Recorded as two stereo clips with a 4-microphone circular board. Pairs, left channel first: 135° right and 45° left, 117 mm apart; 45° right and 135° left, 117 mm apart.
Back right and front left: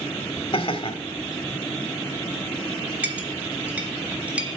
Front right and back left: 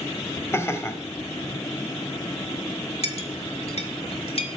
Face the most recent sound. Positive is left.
turn(degrees=-30)